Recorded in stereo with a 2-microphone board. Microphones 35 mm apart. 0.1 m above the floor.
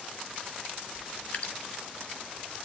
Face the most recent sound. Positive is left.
turn(degrees=50)  # may be behind; listen again after turning